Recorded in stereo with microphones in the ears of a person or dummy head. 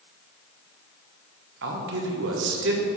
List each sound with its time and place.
1.6 s a man speaking: 65° right (ahead or behind), 1.0 m